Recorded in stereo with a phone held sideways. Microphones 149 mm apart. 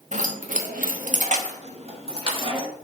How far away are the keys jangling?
About 0.9 m.